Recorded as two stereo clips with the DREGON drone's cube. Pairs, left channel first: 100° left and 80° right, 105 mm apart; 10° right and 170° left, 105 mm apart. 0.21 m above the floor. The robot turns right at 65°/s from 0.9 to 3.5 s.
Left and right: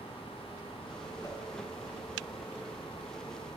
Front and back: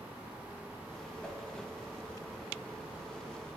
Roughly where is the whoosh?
Left.